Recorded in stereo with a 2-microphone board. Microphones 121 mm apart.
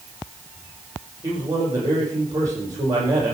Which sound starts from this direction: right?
A man speaking, at 1.2 s.